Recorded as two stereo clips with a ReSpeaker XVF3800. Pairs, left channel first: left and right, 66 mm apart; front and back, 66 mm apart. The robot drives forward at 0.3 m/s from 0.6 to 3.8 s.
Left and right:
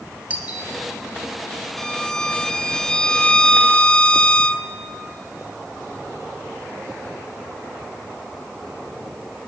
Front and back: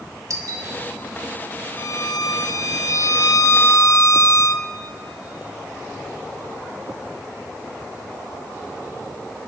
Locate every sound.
0.3 s a doorbell: 155° right, 2.5 m
1.8 s a violin: 10° left, 1.1 m; by 4.7 s 20° left, 0.6 m